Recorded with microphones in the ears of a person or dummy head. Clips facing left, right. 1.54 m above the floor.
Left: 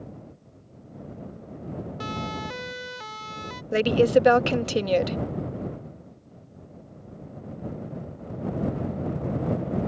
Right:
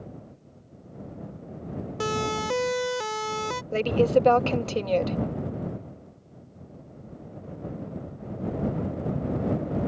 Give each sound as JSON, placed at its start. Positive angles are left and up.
{"t": 2.0, "sound": "a siren", "side_deg": -60}
{"t": 3.7, "sound": "a woman speaking", "side_deg": 15}